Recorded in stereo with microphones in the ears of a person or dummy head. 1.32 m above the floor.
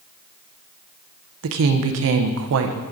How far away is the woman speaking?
About 0.7 m.